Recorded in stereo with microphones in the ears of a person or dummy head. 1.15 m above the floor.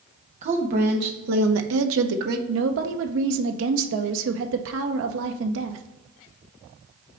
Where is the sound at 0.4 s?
35° right (ahead or behind), 1.3 m; by 2.4 s 55° right (ahead or behind), 0.8 m.